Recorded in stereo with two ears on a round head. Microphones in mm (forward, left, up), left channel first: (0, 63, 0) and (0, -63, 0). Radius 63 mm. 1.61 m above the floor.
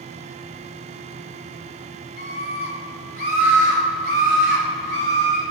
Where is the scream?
65° left (ahead or behind), 2.5 m; by 5.4 s 55° left (ahead or behind), 4.5 m.